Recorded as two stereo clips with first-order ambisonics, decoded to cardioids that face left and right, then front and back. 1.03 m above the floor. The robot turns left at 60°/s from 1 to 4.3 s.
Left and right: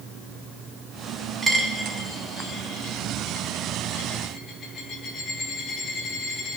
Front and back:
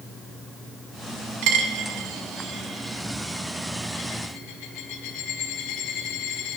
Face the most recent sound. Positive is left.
turn(degrees=25)